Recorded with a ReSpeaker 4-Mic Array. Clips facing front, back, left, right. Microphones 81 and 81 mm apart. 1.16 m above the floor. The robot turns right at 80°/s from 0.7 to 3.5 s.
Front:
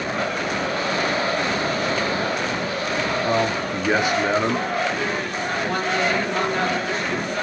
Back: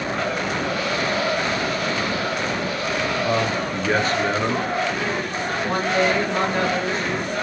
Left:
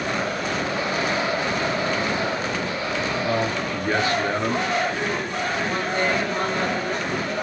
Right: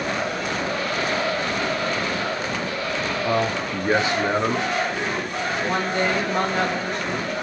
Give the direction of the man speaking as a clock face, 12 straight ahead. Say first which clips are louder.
Front 1 dB, right 4 dB; 3 o'clock.